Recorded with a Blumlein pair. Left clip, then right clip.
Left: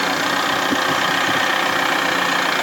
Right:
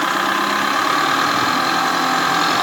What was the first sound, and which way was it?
Only background noise.